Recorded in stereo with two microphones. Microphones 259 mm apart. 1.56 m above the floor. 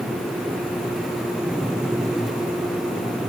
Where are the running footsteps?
I don't hear running footsteps.